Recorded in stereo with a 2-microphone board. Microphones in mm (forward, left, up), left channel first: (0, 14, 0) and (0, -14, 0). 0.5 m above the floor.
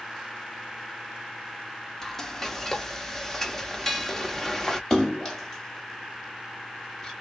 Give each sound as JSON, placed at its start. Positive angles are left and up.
{"t": 2.0, "sound": "frying", "side_deg": 15, "distance_m": 0.7}
{"t": 4.9, "sound": "a splash", "side_deg": 20, "distance_m": 1.6}